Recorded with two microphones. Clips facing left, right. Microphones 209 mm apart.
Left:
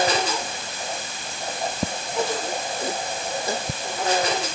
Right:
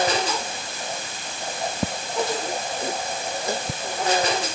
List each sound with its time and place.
Only background noise.